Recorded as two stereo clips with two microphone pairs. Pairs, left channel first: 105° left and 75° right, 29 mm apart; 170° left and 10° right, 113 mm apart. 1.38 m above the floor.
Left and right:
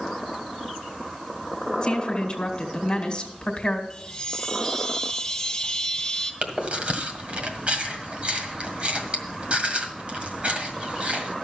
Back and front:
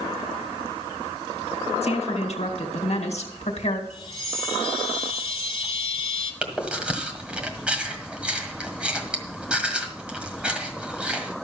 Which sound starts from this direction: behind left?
A woman speaking, at 1.8 s.